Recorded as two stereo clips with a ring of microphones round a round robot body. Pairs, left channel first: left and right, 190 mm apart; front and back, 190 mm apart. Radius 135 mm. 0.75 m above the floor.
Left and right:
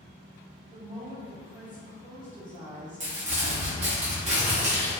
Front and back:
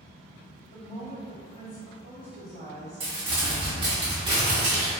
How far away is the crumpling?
About 0.7 m.